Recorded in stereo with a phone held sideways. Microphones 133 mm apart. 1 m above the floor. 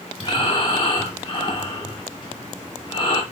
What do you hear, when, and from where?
0.2 s breathing: 35° left (ahead or behind), 1.1 m